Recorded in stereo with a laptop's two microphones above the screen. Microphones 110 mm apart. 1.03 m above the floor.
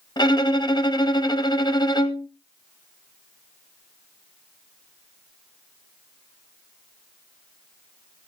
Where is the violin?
40° left (ahead or behind), 1.7 m.